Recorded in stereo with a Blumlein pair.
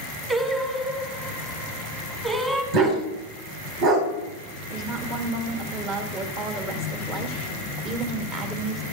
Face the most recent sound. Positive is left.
turn(degrees=-30)